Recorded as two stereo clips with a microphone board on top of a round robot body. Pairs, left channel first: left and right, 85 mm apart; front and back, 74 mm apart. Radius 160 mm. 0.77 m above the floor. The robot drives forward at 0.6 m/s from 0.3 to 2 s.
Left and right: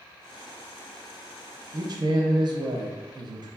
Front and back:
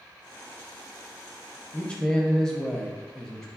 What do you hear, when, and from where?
1.7 s a man speaking: 60° right, 0.6 m; by 3.5 s 80° right, 0.6 m